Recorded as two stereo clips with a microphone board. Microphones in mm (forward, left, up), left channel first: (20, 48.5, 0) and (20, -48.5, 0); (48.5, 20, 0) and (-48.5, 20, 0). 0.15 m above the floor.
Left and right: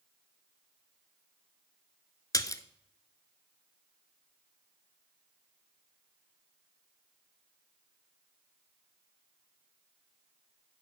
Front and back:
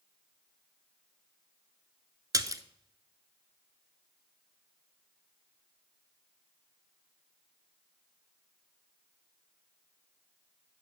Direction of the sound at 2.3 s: 135° left.